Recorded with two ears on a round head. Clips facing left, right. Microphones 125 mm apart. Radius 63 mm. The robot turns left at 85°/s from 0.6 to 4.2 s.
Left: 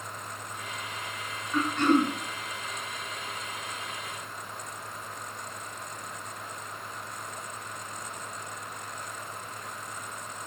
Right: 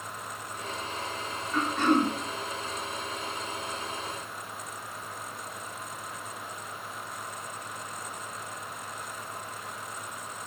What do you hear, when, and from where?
1.5 s throat clearing: 15° left, 1.2 m; by 2.1 s 30° right, 1.2 m